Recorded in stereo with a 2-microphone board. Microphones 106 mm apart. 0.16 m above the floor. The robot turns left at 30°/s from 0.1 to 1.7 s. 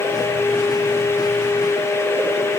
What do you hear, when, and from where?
Only background noise.